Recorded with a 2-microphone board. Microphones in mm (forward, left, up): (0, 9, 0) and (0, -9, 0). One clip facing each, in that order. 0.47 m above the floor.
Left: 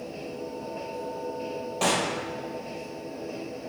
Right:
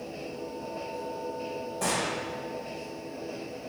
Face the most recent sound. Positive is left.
turn(degrees=70)  # may be behind; listen again after turning